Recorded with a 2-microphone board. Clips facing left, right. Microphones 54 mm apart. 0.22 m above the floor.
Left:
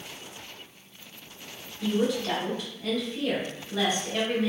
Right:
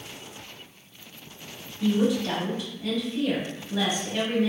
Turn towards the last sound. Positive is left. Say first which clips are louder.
# right 3 dB
turn(degrees=-10)  # may be behind; listen again after turning